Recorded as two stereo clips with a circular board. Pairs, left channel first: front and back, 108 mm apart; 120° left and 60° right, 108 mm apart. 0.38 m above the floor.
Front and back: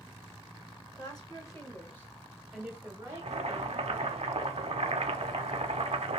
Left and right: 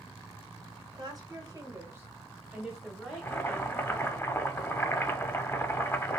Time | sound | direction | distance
1.0 | a woman speaking | 25° right | 1.4 m
3.1 | boiling | 175° right | 0.5 m